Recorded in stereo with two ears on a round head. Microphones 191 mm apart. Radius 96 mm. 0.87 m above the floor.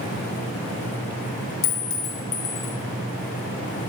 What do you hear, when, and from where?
1.6 s a clink: 65° left (ahead or behind), 1.9 m